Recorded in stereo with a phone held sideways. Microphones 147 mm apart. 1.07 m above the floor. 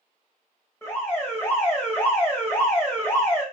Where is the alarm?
15° left (ahead or behind), 1.9 m.